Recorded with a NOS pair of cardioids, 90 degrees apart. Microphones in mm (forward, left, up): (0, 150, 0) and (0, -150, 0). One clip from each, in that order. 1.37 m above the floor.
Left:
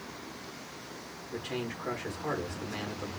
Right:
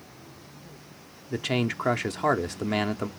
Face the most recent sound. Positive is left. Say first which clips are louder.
# right 9 dB
turn(degrees=-70)